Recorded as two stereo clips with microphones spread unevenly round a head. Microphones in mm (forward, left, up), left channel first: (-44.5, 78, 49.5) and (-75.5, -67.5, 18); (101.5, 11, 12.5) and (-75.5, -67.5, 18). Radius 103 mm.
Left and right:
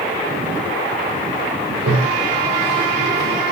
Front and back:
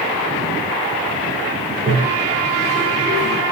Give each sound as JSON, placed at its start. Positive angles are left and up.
{"t": 1.7, "sound": "a toilet flushing", "azimuth_deg": -110, "distance_m": 2.5}